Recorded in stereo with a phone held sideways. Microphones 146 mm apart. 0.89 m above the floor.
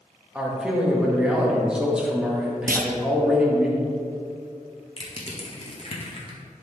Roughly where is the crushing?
Left.